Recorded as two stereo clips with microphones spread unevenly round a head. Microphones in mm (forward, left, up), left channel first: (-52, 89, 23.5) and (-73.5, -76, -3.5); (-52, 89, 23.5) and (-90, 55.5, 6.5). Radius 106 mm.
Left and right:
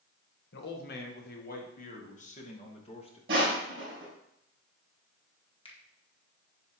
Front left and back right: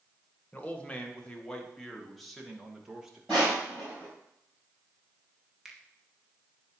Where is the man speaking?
100° left, 1.8 m; by 3.2 s 140° left, 2.5 m.